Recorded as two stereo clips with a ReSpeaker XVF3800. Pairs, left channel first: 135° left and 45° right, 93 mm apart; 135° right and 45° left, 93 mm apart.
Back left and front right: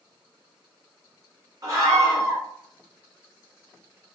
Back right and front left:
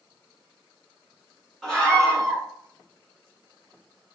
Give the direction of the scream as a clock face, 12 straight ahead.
2 o'clock.